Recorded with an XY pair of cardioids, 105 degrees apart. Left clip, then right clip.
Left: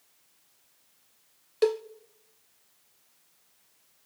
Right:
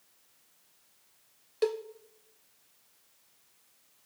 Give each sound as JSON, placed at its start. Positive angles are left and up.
{"t": 1.6, "sound": "a cowbell", "azimuth_deg": 25, "distance_m": 0.8}